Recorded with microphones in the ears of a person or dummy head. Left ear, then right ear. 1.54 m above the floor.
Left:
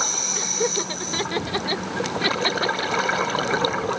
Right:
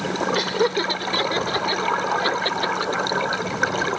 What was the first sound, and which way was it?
Laughter, 20° right (ahead or behind).